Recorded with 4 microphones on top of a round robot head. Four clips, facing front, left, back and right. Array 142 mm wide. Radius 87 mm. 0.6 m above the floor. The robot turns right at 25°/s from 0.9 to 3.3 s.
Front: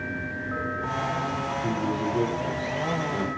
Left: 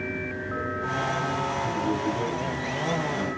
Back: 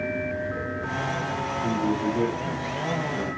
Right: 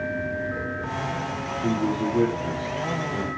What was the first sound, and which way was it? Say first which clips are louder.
A man speaking: right 7 dB, back 4 dB; 100° right.